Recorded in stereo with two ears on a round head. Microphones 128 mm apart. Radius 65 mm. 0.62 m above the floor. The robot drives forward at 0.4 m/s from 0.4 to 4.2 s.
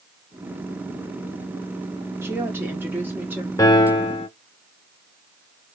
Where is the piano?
20° left (ahead or behind), 0.7 m; by 4.3 s 35° left (ahead or behind), 0.5 m.